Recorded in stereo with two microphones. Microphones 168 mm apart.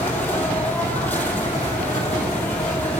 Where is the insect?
10° left (ahead or behind), 1.8 m.